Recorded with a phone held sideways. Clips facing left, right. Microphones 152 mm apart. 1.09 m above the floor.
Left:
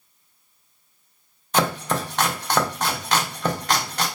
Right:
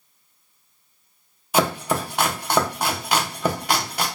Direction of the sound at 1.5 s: 10° right (ahead or behind).